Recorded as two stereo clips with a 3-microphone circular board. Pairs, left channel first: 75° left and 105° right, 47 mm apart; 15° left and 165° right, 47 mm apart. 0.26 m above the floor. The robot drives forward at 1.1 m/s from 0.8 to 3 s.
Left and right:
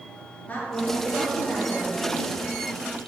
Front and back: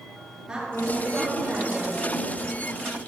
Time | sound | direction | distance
0.5 | a woman speaking | 120° left | 3 m